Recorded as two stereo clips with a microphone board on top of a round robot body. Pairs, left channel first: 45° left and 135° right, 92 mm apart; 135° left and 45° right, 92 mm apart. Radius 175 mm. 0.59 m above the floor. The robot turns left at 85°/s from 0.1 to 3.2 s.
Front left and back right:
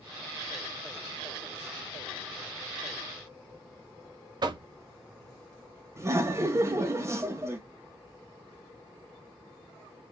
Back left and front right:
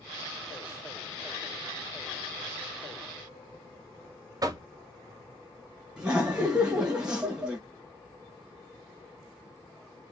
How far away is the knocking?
About 0.5 m.